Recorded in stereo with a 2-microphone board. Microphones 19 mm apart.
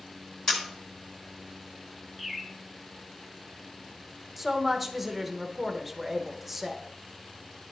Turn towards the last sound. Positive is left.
turn(degrees=-10)  # may be behind; listen again after turning